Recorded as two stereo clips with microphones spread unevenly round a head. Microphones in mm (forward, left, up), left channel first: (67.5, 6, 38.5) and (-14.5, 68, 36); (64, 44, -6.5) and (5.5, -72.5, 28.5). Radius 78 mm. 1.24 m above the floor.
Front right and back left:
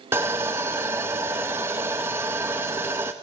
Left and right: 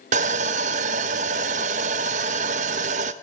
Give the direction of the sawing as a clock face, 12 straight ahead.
5 o'clock.